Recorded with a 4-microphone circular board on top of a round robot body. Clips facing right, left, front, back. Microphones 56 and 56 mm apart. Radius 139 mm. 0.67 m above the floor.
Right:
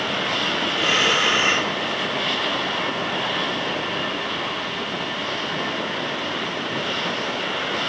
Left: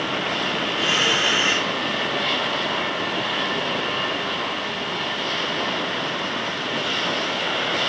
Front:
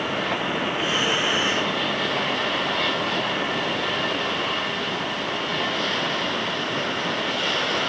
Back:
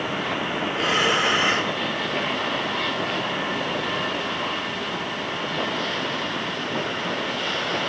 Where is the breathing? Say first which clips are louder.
Right 2 dB, back 5 dB; 145° right, 1.9 m.